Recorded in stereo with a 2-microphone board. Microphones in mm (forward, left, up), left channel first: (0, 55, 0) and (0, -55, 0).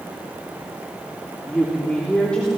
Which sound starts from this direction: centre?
A woman speaking, at 1.5 s.